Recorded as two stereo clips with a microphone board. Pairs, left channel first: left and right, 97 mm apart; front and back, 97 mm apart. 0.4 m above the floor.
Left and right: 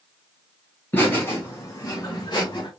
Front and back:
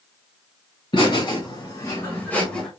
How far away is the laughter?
About 2 m.